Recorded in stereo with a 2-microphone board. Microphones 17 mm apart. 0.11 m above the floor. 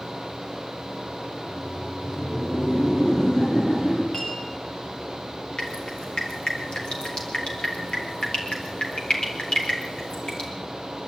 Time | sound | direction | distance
1.3 | laughter | 35° left (ahead or behind) | 7 m
4.1 | a clink | 55° left (ahead or behind) | 8 m
5.6 | dripping | 80° left | 5.5 m